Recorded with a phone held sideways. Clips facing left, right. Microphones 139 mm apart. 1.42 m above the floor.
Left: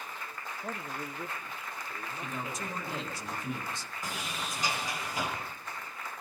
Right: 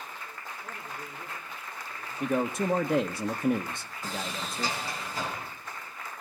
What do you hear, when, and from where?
0.6 s a man speaking: 55° left (ahead or behind), 1.9 m; by 3.0 s 75° left (ahead or behind), 5.5 m
2.2 s a man speaking: 70° right (ahead or behind), 1.3 m
4.0 s a sliding door: 15° left (ahead or behind), 8 m